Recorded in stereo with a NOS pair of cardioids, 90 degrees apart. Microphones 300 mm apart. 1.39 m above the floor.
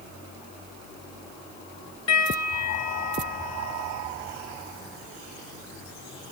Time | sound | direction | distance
2.1 | a piano | 55° left | 9 m